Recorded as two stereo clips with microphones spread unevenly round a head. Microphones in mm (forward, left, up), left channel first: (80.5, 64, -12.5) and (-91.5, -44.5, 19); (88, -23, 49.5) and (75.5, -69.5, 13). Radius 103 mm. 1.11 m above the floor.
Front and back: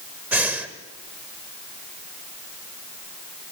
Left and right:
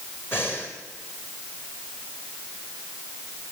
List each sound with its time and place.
0.3 s breathing: 135° left, 1.7 m